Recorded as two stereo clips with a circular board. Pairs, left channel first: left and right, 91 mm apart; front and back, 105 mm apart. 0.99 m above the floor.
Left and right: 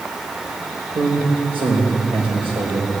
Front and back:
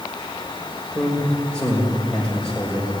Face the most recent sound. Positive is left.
turn(degrees=-85)